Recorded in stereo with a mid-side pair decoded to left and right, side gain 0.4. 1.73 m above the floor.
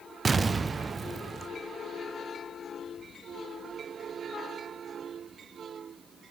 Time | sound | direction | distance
0.2 | an explosion | 35° right | 0.5 m